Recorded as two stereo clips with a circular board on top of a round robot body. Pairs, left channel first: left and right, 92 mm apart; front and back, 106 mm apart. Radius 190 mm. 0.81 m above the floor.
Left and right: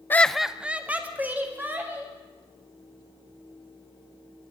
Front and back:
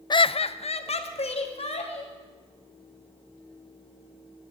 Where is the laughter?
30° left, 0.5 m; by 2.1 s 20° right, 3 m.